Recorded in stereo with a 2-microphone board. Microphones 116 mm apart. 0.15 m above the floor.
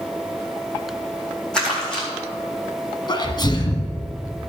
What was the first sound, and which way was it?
Crumpling, 10° left (ahead or behind).